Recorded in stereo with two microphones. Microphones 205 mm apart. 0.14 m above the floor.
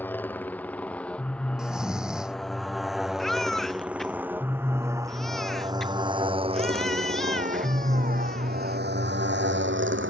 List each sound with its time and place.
0.0 s a motorcycle: 10° left (ahead or behind); by 10.1 s 70° right (ahead or behind)
1.6 s snoring: 5° right (ahead or behind)
3.2 s a baby crying: centre (ahead or behind)